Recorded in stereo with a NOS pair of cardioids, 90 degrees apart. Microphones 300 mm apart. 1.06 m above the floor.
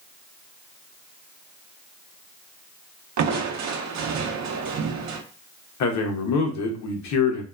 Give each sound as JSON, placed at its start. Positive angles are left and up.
{"t": 3.2, "sound": "crushing", "azimuth_deg": -65, "distance_m": 0.6}
{"t": 5.8, "sound": "a man speaking", "azimuth_deg": 65, "distance_m": 0.9}